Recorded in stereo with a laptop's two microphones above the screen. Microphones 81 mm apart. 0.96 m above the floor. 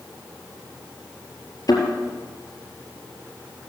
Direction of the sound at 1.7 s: 50° left (ahead or behind).